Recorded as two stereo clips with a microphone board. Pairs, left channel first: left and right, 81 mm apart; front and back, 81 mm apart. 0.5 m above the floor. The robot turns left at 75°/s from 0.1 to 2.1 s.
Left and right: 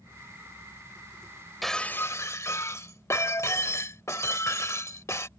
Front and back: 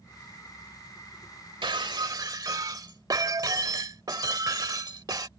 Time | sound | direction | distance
1.6 | breaking glass | straight behind | ?